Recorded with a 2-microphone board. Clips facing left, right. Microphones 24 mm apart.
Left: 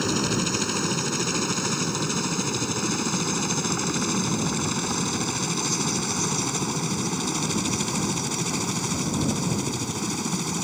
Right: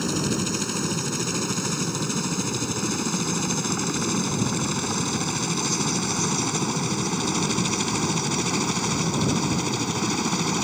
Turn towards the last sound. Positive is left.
turn(degrees=-25)  # may be behind; listen again after turning